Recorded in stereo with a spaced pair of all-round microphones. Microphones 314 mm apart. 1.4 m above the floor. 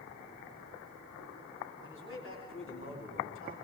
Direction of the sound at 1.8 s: 40° left (ahead or behind).